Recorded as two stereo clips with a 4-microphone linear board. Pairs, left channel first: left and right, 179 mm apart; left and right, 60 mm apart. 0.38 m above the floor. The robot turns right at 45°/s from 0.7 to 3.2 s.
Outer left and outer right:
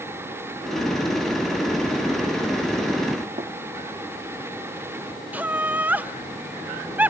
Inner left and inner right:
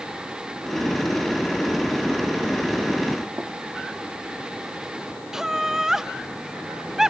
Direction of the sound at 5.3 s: 10° right (ahead or behind).